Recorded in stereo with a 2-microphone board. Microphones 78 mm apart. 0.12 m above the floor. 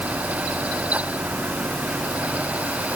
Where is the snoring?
I don't hear snoring.